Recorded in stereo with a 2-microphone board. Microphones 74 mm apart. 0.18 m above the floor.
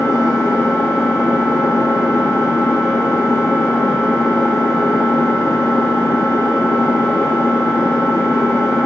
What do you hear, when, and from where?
0.0 s an engine running: 45° left (ahead or behind), 0.8 m